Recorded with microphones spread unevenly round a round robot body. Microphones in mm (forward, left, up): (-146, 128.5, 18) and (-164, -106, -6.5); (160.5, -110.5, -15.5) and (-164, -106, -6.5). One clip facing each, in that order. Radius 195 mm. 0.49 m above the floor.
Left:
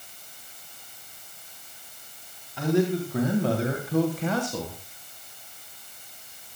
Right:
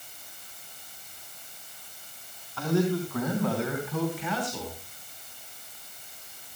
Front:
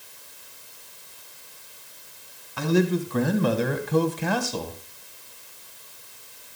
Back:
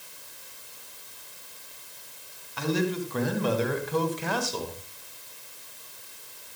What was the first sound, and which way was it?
A man speaking, 5° left.